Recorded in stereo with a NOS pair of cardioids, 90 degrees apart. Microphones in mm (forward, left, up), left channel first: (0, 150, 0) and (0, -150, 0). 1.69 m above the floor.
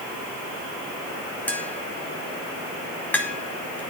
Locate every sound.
1.5 s tapping: 5° left, 4 m